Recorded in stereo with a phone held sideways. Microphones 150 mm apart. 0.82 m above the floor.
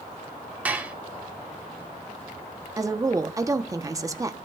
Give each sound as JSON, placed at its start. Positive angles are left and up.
{"t": 0.7, "sound": "dishes clattering", "side_deg": -10, "distance_m": 1.0}
{"t": 2.8, "sound": "a woman speaking", "side_deg": -20, "distance_m": 0.9}